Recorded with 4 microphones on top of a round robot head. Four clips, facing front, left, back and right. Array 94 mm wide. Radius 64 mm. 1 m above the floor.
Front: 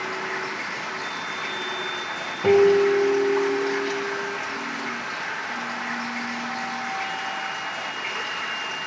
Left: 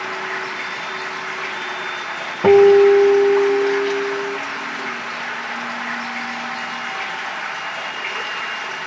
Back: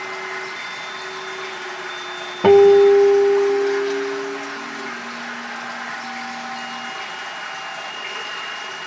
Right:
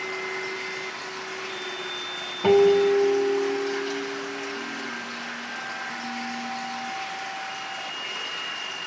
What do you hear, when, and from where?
0.0 s running water: 80° left, 1.2 m
2.4 s a guitar: 135° left, 0.9 m